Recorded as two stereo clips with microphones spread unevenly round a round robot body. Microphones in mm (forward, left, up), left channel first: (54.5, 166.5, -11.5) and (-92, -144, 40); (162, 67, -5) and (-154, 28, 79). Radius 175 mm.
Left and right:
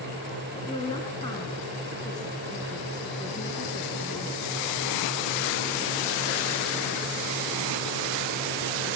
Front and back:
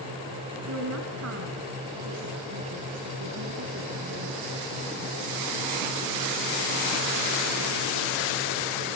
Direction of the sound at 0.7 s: 145° left.